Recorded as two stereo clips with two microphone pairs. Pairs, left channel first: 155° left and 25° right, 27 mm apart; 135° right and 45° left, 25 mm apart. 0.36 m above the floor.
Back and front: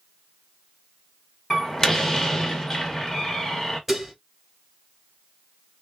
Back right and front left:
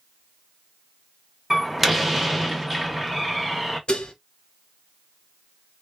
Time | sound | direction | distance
1.5 | a door slam | 130° left | 0.8 m
3.9 | dishes clattering | 105° right | 0.8 m